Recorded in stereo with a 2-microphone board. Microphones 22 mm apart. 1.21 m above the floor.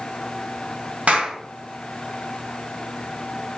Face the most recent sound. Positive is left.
turn(degrees=-75)  # may be behind; listen again after turning